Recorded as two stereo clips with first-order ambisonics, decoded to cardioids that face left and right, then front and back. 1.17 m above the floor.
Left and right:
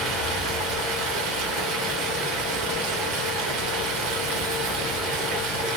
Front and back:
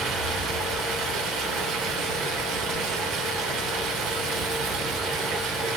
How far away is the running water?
About 1.8 m.